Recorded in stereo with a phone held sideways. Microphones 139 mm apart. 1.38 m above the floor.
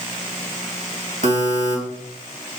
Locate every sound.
1.2 s a buzzer: 65° right (ahead or behind), 2 m